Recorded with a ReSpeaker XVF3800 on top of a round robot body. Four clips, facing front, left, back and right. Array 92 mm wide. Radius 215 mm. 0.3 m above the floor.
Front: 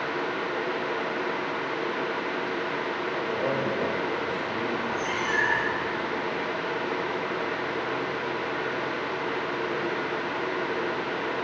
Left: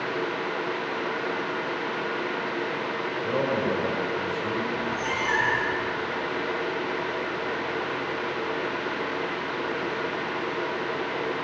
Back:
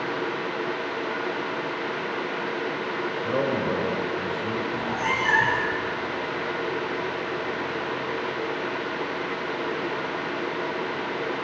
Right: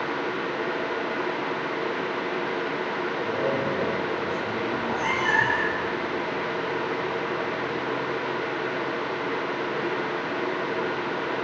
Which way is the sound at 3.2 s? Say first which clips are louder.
Left 2 dB, back 3 dB; 155° left.